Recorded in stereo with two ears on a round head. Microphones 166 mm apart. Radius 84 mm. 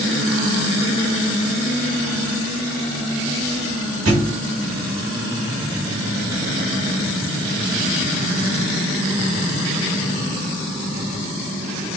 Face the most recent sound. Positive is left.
turn(degrees=-75)  # may be behind; listen again after turning